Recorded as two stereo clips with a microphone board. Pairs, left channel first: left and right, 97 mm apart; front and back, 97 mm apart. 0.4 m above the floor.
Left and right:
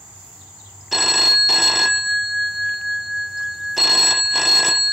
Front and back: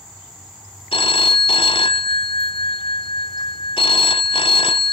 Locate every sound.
0.9 s a phone ringing: 5° right